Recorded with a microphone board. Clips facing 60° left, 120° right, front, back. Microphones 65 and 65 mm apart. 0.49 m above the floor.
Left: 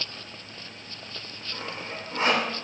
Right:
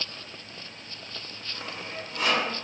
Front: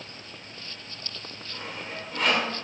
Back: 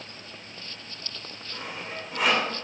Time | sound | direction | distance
1.5 | sawing | 100° left | 1.6 m